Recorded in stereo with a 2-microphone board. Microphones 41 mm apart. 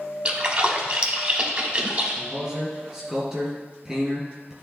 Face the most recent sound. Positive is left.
turn(degrees=-10)  # may be behind; listen again after turning